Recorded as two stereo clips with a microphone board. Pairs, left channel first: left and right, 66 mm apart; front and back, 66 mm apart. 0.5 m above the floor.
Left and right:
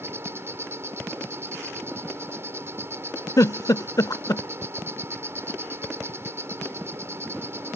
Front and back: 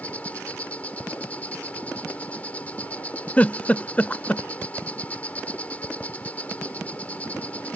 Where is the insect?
60° right.